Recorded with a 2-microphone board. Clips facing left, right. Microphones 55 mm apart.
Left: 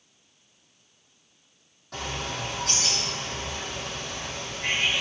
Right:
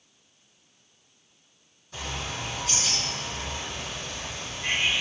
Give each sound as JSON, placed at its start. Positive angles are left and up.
{"t": 1.9, "sound": "a bird", "side_deg": 70, "distance_m": 8.5}